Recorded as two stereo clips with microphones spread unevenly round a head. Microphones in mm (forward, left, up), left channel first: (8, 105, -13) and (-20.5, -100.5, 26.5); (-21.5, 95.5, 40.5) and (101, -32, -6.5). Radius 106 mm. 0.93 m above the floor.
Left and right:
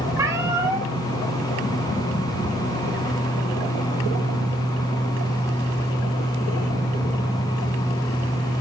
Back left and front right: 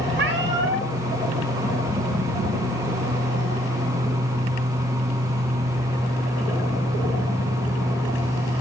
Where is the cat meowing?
25° right, 2 m.